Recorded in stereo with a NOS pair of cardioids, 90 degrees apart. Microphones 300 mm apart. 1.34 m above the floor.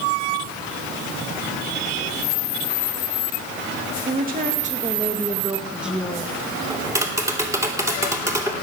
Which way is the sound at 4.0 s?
30° right.